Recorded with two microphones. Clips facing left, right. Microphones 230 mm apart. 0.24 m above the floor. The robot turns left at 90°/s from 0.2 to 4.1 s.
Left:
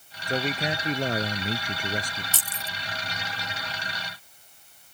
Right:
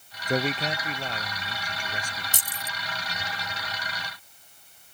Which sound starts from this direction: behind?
A man speaking, at 0.3 s.